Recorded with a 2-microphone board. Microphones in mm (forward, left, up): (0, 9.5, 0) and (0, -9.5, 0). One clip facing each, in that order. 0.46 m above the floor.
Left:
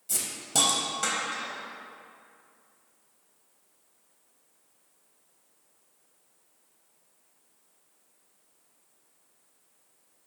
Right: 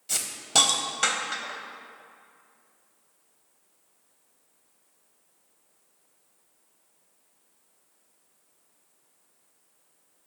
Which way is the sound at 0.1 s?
30° right (ahead or behind).